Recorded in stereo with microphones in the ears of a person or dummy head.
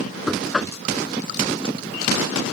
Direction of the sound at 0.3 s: 5° right (ahead or behind).